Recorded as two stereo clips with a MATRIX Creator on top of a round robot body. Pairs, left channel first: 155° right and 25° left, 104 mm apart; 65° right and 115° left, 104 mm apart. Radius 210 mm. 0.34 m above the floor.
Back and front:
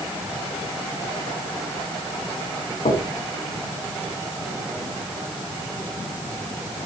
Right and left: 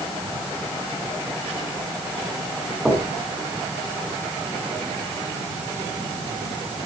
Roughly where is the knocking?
Behind.